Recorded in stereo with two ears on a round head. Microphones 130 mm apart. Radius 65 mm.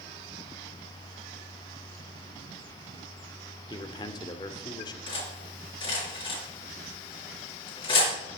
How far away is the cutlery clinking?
About 4.5 m.